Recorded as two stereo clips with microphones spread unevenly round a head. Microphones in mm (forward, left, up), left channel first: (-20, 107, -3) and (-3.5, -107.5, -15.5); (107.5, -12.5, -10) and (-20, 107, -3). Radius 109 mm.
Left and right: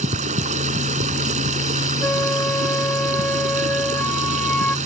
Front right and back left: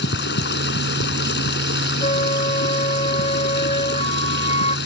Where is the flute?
10° left.